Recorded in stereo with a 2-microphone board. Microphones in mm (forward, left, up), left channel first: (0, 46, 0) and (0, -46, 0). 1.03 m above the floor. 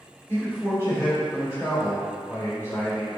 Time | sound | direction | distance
0.3 | a man speaking | 30° left (ahead or behind) | 1.6 m